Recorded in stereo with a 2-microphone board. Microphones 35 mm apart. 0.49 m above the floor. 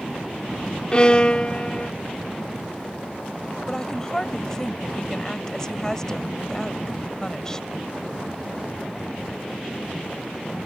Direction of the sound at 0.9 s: 25° left (ahead or behind).